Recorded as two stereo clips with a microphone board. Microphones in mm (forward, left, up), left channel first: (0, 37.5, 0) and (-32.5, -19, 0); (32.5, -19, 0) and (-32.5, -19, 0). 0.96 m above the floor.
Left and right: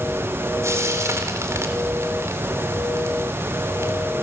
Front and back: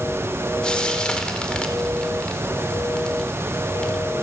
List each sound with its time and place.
0.6 s frying: 75° right, 4 m